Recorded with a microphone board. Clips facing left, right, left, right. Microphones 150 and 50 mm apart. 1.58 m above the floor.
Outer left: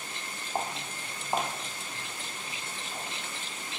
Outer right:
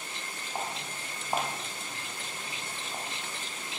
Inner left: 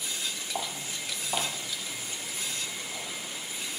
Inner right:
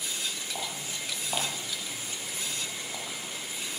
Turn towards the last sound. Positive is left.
turn(degrees=-60)  # may be behind; listen again after turning